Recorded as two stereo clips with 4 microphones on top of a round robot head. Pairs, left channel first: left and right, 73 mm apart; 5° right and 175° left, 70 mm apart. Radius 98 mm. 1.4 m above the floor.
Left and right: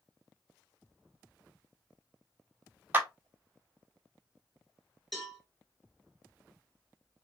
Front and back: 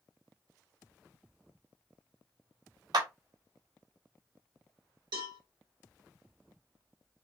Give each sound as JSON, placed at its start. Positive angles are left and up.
{"t": 2.9, "sound": "a clap", "azimuth_deg": -155, "distance_m": 1.2}
{"t": 5.1, "sound": "a cowbell", "azimuth_deg": 180, "distance_m": 3.5}